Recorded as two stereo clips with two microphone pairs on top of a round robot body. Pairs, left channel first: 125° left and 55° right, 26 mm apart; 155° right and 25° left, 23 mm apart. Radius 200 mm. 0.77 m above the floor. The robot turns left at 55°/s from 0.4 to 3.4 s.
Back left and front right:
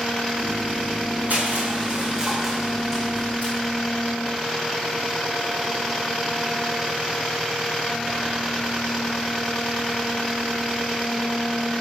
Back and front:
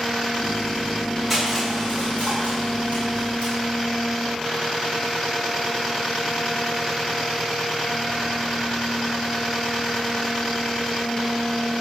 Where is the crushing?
70° right, 7.5 m; by 3.5 s 175° left, 7.5 m.